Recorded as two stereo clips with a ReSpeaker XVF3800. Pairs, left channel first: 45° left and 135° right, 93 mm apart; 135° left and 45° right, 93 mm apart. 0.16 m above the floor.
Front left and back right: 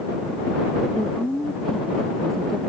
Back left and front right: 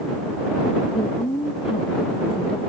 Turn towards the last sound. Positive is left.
turn(degrees=135)